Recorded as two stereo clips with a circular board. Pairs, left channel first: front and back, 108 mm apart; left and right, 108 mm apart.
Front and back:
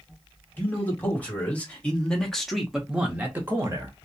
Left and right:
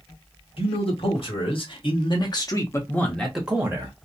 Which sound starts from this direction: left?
A man speaking, at 0.6 s.